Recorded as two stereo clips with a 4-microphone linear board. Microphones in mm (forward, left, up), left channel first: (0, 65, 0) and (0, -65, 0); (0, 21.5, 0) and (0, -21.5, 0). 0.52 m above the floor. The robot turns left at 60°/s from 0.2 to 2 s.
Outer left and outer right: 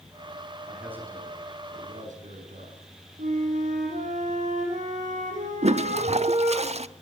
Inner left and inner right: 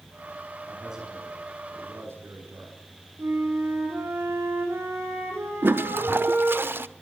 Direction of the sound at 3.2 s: 80° right.